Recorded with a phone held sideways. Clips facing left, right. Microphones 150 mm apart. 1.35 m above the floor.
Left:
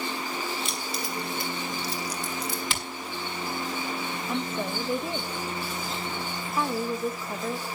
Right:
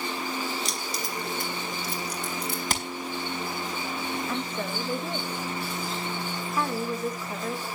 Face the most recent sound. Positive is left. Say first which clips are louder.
# left 1 dB
turn(degrees=5)  # may be behind; listen again after turning